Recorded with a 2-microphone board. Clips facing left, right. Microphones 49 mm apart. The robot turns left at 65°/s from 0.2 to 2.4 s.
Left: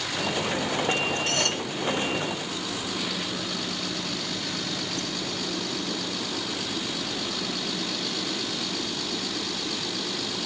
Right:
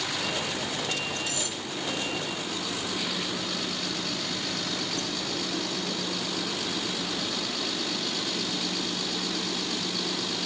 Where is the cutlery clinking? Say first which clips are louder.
Left 7 dB; 60° left (ahead or behind); by 1.6 s 85° left.